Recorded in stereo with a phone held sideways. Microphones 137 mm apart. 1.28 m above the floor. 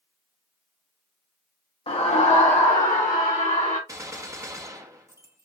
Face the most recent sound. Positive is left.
turn(degrees=-25)  # may be behind; listen again after turning